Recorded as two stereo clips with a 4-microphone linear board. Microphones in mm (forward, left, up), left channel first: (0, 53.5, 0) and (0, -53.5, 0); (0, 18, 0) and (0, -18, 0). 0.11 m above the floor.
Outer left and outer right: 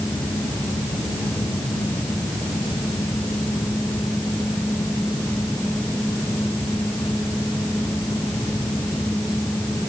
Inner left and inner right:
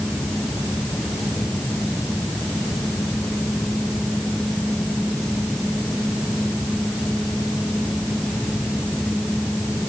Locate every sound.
Only background noise.